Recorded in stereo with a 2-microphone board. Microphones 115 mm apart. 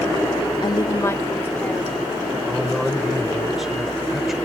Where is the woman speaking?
40° left (ahead or behind); by 2.2 s 15° left (ahead or behind).